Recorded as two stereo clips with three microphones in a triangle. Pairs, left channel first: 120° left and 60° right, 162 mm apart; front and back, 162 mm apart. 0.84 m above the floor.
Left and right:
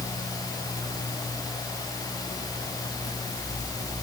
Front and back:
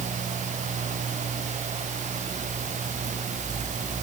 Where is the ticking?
I don't hear ticking.